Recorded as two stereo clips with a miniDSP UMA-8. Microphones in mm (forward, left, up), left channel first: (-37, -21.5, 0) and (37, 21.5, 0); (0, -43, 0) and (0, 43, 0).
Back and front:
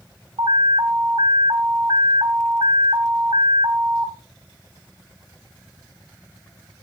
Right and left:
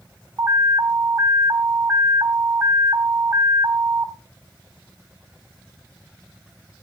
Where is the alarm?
35° left, 1.3 m.